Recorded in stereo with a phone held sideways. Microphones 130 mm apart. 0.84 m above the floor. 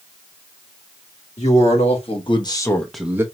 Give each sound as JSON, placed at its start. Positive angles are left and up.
{"t": 1.4, "sound": "a man speaking", "side_deg": 65, "distance_m": 1.8}